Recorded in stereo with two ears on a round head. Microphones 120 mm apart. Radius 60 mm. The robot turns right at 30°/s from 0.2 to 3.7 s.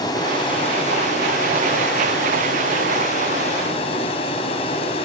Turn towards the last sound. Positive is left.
turn(degrees=135)